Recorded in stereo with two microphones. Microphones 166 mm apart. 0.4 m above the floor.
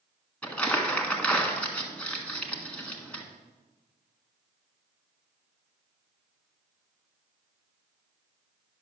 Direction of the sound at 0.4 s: 10° left (ahead or behind).